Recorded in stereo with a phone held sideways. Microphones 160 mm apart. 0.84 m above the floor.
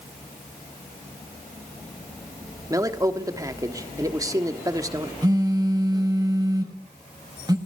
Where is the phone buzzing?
25° right (ahead or behind), 1.6 m.